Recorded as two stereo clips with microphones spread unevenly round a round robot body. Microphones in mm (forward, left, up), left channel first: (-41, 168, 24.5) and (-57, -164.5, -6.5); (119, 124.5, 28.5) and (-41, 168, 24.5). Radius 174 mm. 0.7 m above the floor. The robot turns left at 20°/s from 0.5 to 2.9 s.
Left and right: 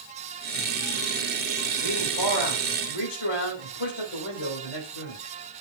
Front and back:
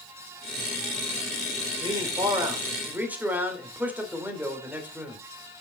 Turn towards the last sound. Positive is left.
turn(degrees=85)